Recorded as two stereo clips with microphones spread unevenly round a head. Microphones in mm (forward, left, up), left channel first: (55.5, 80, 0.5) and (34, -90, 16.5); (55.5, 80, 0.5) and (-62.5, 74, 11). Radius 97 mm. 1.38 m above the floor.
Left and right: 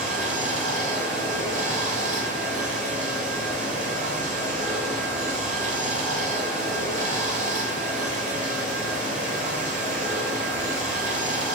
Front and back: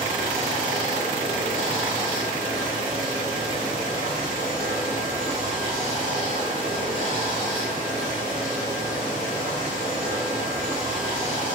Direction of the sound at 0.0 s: 60° right.